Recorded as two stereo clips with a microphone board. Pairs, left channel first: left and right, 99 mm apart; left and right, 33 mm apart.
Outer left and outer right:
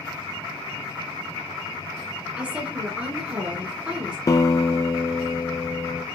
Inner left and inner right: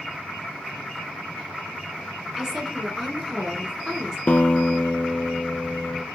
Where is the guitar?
40° left (ahead or behind), 0.6 m.